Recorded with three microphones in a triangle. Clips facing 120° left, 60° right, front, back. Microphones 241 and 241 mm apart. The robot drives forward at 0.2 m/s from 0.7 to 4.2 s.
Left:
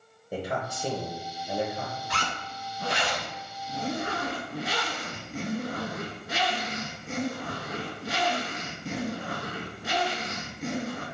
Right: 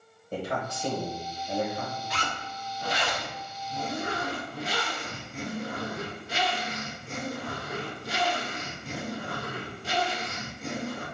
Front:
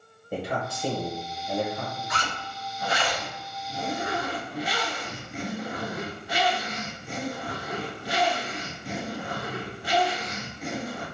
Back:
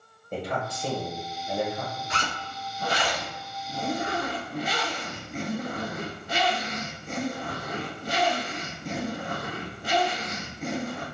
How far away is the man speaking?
About 1.1 m.